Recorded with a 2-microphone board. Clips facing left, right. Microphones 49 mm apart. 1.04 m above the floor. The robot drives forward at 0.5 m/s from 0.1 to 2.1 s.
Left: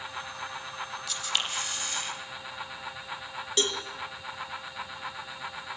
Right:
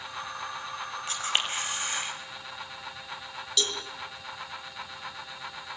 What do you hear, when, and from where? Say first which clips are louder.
1.1 s a camera shutter: right 3 dB; 35° right (ahead or behind), 4.5 m; by 2.1 s 30° right (ahead or behind), 5 m
3.6 s a cowbell: left 2 dB; 35° left (ahead or behind), 3 m